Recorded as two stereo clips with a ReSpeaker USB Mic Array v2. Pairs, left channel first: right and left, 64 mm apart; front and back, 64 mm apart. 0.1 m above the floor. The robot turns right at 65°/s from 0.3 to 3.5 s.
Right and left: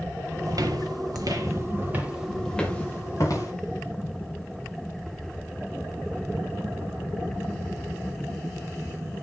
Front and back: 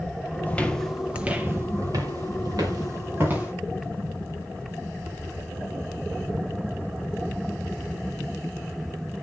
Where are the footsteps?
65° left, 1.3 m; by 3.5 s 105° right, 4.5 m.